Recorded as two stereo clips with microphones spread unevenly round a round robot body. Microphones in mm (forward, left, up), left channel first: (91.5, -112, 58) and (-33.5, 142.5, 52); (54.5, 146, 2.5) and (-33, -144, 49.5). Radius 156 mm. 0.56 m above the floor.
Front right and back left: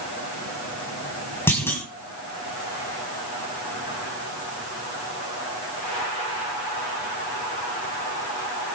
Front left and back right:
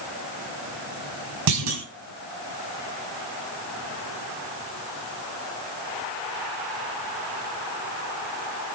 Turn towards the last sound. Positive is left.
turn(degrees=-145)